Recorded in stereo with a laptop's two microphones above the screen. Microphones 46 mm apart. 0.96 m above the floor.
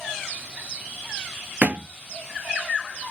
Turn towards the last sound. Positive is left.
turn(degrees=-45)  # may be behind; listen again after turning